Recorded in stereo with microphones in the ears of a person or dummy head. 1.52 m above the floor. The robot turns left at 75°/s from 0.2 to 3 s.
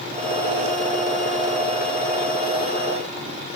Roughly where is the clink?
I don't hear a clink.